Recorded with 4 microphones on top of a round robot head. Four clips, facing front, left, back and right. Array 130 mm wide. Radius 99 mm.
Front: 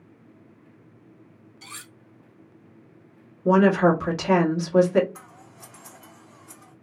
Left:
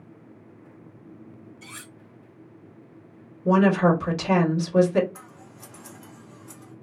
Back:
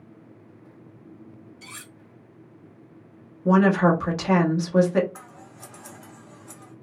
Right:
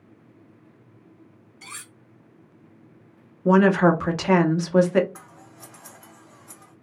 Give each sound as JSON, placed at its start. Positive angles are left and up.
{"t": 1.6, "sound": "cutlery clinking", "azimuth_deg": -65, "distance_m": 0.7}
{"t": 3.5, "sound": "a woman speaking", "azimuth_deg": -95, "distance_m": 1.0}
{"t": 5.2, "sound": "scissors", "azimuth_deg": -140, "distance_m": 1.2}